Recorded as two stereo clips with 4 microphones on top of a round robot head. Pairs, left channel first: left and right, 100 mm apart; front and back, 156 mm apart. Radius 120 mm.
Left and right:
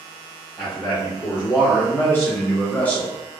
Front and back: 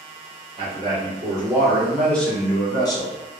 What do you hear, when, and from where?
0.6 s a man speaking: 140° left, 1.4 m; by 3.4 s 15° left, 1.3 m